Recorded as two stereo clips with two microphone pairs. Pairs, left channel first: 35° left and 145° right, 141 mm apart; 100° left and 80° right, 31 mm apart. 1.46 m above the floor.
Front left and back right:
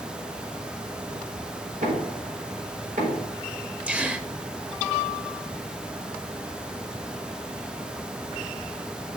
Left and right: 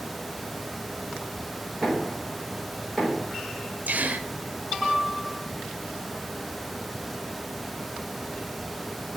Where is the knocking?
175° right, 5 m.